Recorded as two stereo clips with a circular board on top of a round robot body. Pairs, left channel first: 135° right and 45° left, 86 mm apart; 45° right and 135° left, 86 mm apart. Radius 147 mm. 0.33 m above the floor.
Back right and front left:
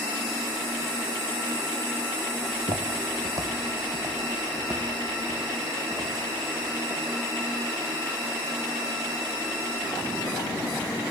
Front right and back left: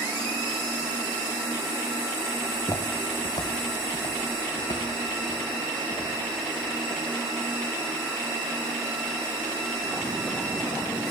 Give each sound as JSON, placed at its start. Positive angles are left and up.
{"t": 2.4, "sound": "footsteps", "azimuth_deg": 25, "distance_m": 0.6}